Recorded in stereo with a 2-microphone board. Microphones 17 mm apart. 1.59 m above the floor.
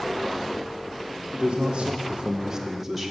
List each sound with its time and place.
1.3 s a man speaking: 50° right (ahead or behind), 1.3 m; by 3.1 s 5° right (ahead or behind), 1.6 m